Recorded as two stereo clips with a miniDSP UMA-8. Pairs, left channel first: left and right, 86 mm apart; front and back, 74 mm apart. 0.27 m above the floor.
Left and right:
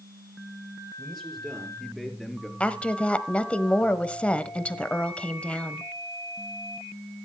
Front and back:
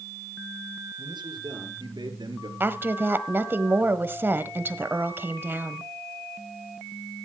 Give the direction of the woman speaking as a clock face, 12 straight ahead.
7 o'clock.